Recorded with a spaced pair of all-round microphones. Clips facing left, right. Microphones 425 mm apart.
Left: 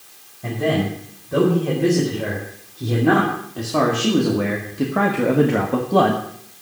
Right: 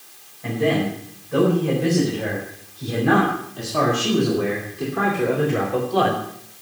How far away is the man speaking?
About 4.5 m.